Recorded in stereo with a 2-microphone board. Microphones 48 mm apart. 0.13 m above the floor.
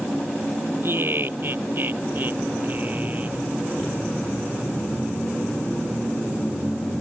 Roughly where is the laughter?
Right.